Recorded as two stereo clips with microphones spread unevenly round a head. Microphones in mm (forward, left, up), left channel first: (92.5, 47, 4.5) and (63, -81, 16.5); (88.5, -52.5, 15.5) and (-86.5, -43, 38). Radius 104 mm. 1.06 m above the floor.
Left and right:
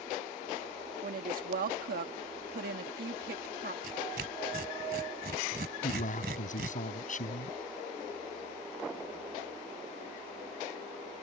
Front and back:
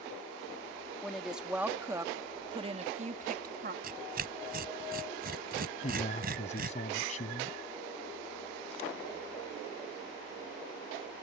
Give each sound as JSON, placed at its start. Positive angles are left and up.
{"t": 1.0, "sound": "a woman speaking", "azimuth_deg": -90}
{"t": 3.8, "sound": "tearing paper", "azimuth_deg": -150}
{"t": 5.8, "sound": "a man speaking", "azimuth_deg": 55}